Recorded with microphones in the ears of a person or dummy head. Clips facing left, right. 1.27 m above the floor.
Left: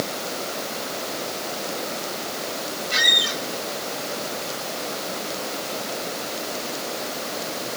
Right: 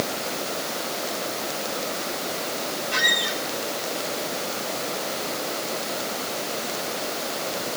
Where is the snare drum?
No snare drum in this recording.